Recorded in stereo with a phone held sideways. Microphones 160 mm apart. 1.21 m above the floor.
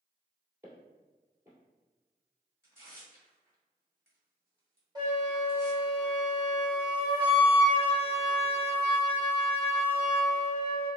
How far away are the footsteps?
About 1.9 m.